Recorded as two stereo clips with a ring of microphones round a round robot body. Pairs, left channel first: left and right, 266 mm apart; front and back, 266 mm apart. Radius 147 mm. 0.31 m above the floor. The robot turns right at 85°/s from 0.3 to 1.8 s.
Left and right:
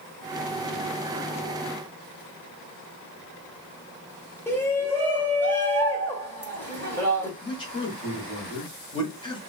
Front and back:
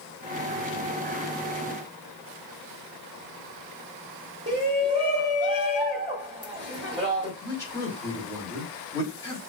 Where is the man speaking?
60° left, 1.0 m.